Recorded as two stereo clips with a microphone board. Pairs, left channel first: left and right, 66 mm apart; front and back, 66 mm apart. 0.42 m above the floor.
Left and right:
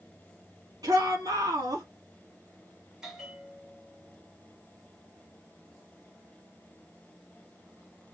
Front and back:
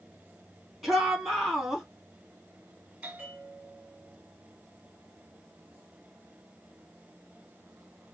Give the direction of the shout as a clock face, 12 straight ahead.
3 o'clock.